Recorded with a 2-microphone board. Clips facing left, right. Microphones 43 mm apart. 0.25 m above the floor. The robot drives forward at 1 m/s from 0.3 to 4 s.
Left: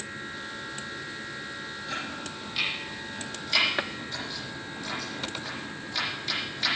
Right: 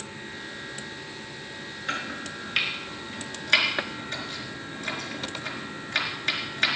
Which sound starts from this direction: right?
Chopping, at 1.9 s.